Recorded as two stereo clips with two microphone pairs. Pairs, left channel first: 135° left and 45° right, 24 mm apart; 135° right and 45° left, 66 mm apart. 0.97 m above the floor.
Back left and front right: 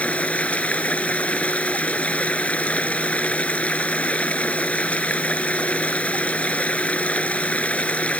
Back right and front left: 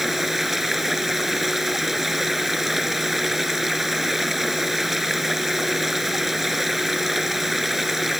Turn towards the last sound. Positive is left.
turn(degrees=130)